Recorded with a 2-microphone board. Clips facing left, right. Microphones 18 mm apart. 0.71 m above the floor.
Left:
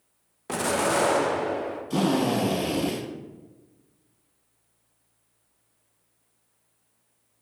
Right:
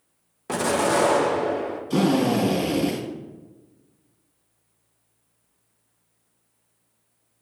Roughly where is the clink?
No clink in this recording.